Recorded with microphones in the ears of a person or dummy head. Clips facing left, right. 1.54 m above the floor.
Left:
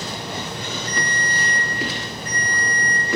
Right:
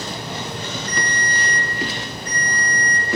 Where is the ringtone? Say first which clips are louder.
Right 1 dB; 45° left (ahead or behind), 1.2 m.